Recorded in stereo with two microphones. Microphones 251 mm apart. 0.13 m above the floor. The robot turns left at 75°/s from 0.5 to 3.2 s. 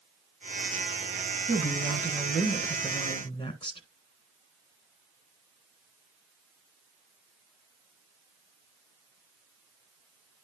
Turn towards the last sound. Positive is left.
turn(degrees=20)  # may be behind; listen again after turning